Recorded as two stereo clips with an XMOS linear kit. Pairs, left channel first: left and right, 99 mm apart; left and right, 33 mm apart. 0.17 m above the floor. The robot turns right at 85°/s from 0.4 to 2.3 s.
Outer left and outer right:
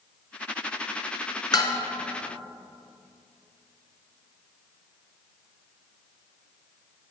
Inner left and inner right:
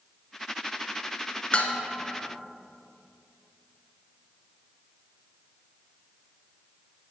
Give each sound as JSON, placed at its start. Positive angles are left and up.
{"t": 1.5, "sound": "dishes clattering", "side_deg": 45, "distance_m": 1.1}